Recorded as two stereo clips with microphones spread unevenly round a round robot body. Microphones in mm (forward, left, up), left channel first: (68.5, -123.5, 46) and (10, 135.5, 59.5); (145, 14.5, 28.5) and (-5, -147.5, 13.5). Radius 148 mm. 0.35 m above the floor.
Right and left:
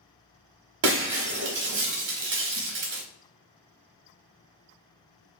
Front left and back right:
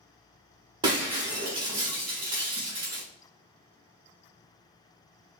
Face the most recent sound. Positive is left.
turn(degrees=155)